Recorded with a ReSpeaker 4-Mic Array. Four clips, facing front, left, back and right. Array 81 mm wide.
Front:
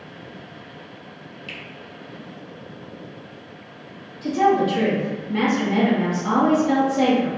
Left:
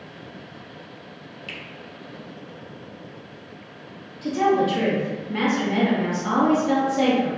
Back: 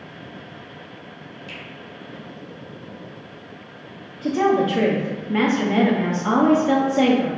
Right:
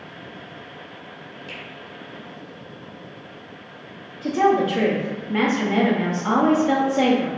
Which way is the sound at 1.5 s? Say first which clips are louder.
Even, front 1 dB; 50° left.